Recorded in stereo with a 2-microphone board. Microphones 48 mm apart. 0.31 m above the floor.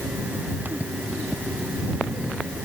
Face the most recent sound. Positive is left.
No sound to turn to.